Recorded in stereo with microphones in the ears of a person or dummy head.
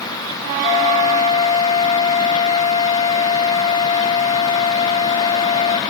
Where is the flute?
40° left (ahead or behind), 0.8 m.